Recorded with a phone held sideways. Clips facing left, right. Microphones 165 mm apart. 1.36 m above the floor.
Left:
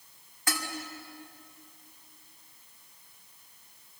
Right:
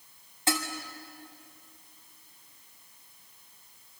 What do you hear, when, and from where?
0.5 s dishes clattering: 25° right (ahead or behind), 2.5 m